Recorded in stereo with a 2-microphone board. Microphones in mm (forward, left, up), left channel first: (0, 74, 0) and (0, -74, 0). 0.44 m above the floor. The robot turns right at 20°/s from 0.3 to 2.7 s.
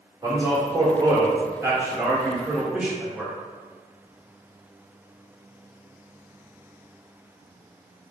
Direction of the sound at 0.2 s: 20° right (ahead or behind).